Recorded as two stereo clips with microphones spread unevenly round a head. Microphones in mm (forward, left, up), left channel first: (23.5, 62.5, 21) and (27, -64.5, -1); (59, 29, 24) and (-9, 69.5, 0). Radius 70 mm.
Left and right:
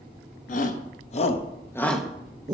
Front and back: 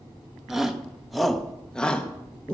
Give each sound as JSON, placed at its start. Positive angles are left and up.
{"t": 0.5, "sound": "a shout", "azimuth_deg": 75, "distance_m": 1.7}